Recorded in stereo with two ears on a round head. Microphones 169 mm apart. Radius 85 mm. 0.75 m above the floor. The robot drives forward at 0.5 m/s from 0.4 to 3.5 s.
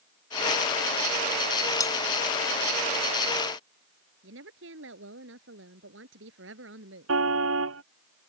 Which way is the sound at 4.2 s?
70° right (ahead or behind).